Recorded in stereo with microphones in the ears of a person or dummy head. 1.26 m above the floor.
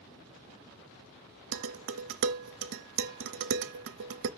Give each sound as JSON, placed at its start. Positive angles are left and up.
{"t": 1.5, "sound": "dishes clattering", "side_deg": -65, "distance_m": 0.8}